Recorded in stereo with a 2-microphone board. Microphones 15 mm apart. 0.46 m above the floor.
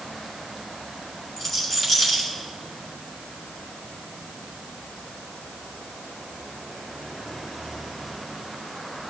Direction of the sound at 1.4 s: 25° left (ahead or behind).